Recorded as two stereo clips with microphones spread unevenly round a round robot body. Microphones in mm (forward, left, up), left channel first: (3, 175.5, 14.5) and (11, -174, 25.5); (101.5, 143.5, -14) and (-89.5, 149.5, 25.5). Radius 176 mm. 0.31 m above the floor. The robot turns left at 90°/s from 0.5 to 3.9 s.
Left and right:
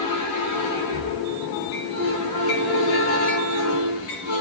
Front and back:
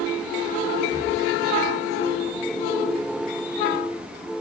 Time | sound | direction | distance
0.9 | breathing | 115° left | 4 m